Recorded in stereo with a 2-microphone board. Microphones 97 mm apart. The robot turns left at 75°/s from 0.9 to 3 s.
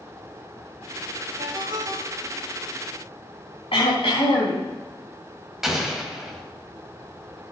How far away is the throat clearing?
About 4.5 m.